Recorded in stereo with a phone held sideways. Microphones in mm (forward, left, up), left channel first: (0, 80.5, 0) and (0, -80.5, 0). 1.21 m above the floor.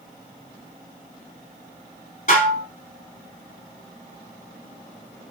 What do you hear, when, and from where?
2.3 s dishes clattering: 55° left (ahead or behind), 2.0 m